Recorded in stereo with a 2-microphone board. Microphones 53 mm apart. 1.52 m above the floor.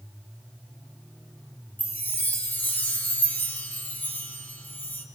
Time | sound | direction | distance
1.8 | a chime | 35° left (ahead or behind) | 2.5 m